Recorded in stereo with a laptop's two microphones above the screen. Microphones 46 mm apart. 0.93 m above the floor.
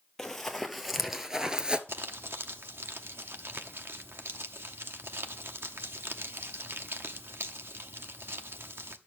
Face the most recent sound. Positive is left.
turn(degrees=-55)  # may be behind; listen again after turning